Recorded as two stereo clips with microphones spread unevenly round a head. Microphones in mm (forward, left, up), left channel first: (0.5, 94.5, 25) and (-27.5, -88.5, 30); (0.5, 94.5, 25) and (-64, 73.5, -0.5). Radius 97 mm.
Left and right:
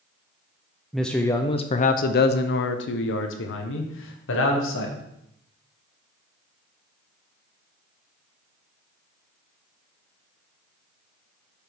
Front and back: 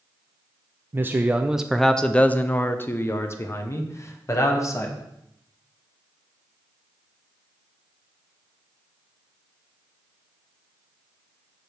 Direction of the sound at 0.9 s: 170° left.